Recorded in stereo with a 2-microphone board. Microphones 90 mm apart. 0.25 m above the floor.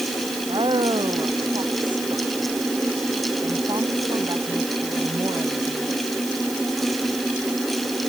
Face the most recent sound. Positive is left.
turn(degrees=-45)  # may be behind; listen again after turning